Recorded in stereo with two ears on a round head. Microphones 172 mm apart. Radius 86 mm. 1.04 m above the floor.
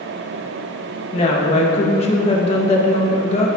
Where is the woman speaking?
30° left (ahead or behind), 1.2 m.